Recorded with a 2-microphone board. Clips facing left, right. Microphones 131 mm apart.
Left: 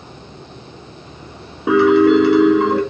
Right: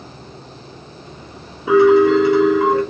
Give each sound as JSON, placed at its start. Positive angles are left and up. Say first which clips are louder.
{"t": 1.7, "sound": "a piano", "louder": "even", "side_deg": 75, "distance_m": 1.4}